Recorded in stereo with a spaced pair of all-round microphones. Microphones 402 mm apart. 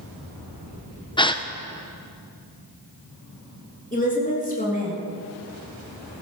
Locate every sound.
1.2 s a gasp: 10° left (ahead or behind), 0.7 m
3.9 s a woman speaking: 20° left (ahead or behind), 3.5 m